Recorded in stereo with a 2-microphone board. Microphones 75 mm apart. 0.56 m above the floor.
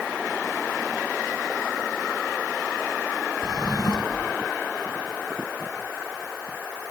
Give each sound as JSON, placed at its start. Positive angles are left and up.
{"t": 3.4, "sound": "a drawer", "side_deg": 70}